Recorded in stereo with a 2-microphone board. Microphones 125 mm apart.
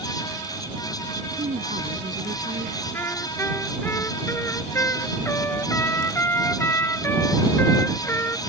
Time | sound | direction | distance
1.4 | a woman speaking | 80° right | ?
2.9 | a trumpet | 15° left (ahead or behind) | ?